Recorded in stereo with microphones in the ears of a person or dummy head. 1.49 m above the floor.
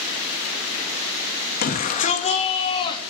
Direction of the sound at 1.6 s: 50° left (ahead or behind).